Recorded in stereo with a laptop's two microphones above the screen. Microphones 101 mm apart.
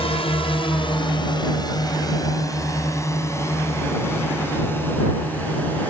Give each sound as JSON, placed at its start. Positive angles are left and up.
{"t": 0.0, "sound": "a drone", "side_deg": 80}